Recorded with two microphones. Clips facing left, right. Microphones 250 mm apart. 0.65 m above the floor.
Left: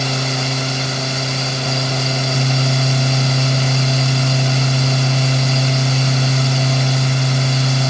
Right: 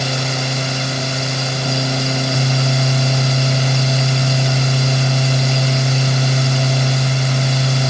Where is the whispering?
I don't hear whispering.